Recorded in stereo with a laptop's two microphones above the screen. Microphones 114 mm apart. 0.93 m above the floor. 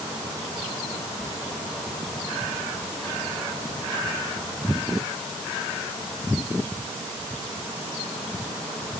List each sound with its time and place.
Only background noise.